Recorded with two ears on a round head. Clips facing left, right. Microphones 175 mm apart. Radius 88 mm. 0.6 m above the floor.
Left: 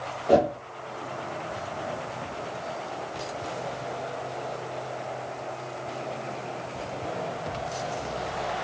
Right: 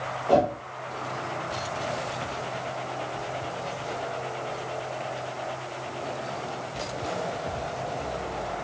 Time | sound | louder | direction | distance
0.3 | a whoosh | left 1 dB | 20° left (ahead or behind) | 0.5 m